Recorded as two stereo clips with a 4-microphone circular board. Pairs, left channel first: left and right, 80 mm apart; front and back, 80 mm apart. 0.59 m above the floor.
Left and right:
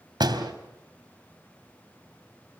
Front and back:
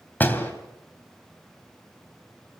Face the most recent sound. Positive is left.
turn(degrees=-65)